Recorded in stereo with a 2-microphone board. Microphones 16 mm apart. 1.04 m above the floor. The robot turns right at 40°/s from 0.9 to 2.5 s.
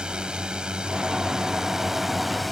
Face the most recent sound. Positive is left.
turn(degrees=-5)